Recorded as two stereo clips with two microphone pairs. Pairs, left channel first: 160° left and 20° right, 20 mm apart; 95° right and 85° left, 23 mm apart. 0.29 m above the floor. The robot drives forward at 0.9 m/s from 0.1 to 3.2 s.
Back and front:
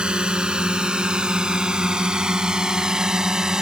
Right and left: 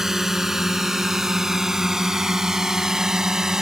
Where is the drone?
15° left; by 3.6 s 25° left.